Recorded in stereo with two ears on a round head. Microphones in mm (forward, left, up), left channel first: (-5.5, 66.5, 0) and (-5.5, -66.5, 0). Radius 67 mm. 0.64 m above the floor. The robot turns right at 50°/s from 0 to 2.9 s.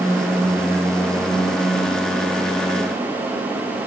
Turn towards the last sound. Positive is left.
No sound to turn to.